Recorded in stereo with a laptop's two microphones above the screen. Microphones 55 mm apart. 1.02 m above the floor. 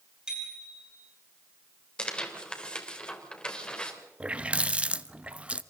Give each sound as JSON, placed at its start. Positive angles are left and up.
{"t": 0.3, "sound": "a bicycle bell", "side_deg": -15, "distance_m": 7.0}
{"t": 2.0, "sound": "tearing paper", "side_deg": 20, "distance_m": 3.5}
{"t": 4.2, "sound": "a running tap", "side_deg": -20, "distance_m": 0.7}